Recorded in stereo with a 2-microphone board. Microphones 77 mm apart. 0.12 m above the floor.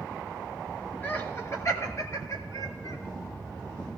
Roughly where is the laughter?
Left.